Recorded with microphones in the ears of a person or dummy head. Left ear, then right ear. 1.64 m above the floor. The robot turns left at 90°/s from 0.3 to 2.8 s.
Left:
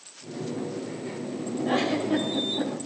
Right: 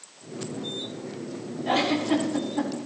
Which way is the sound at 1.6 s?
15° right (ahead or behind).